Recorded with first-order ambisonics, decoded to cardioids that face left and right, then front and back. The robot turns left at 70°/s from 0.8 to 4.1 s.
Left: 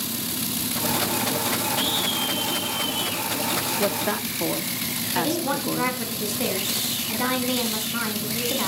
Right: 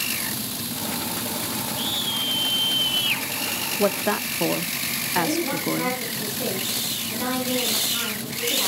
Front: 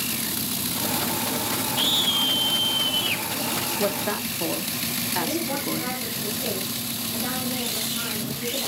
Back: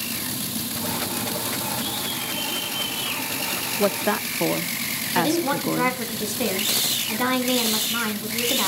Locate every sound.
1.8 s a scream: 10° left, 5.5 m; by 3.2 s 95° right, 5.5 m
3.8 s a woman speaking: 130° right, 0.6 m; by 6.0 s 150° right, 0.6 m
5.2 s a woman speaking: 160° left, 4.5 m